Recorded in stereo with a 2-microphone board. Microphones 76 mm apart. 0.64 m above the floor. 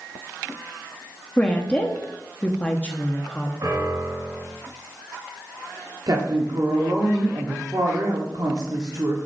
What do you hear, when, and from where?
1.4 s a woman speaking: 20° left (ahead or behind), 0.8 m
3.6 s a piano: 55° right (ahead or behind), 4 m
6.1 s a woman speaking: 55° right (ahead or behind), 1.1 m